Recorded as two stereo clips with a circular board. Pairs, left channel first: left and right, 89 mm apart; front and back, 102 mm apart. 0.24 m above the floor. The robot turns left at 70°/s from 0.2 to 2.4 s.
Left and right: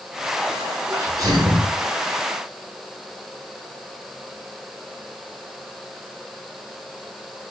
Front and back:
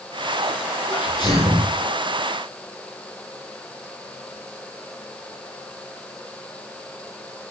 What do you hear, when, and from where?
0.9 s a sneeze: 25° right, 3 m; by 1.8 s 85° right, 3 m